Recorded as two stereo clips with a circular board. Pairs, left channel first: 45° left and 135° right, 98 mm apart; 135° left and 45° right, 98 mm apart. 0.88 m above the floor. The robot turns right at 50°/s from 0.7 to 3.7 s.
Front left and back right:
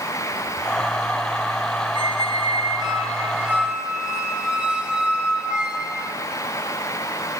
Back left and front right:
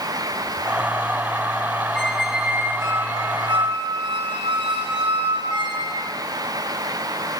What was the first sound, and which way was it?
A squeak, 145° right.